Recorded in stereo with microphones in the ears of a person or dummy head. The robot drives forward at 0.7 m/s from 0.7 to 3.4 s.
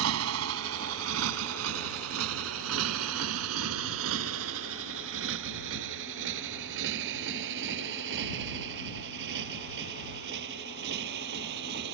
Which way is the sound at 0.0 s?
70° right (ahead or behind).